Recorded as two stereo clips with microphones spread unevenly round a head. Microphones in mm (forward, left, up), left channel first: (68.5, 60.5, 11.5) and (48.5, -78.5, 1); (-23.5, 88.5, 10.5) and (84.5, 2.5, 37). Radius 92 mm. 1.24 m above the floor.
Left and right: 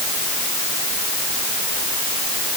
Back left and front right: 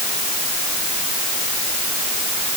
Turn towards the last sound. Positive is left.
No sound to turn to.